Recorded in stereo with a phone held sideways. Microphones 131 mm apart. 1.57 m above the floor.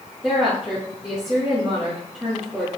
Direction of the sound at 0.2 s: 15° right (ahead or behind).